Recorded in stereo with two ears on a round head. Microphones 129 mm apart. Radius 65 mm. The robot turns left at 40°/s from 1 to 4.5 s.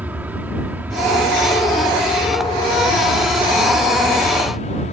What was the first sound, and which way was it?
An aircraft, 165° right.